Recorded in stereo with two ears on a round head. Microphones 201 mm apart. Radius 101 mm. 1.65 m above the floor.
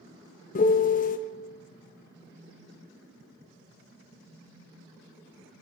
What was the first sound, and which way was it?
A piano, 35° left (ahead or behind).